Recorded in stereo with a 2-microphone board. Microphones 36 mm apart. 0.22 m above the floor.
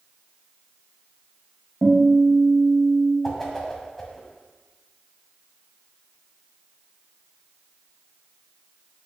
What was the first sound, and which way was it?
A guitar, 55° right (ahead or behind).